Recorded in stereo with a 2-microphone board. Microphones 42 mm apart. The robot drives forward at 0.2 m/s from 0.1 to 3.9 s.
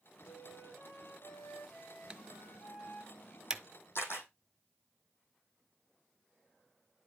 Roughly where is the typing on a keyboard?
Right.